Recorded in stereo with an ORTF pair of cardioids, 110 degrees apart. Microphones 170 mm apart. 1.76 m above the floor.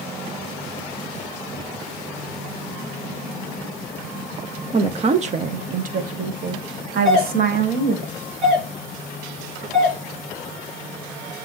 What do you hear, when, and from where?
4.7 s a woman speaking: 30° right, 0.8 m; by 8.1 s 60° right, 2.5 m
7.0 s a doorbell: 5° left, 5 m